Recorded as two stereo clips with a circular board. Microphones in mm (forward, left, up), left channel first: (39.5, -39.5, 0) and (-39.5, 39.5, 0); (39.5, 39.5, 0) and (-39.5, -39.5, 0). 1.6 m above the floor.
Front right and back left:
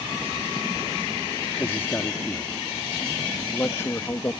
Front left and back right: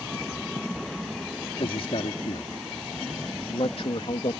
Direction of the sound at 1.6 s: 25° left.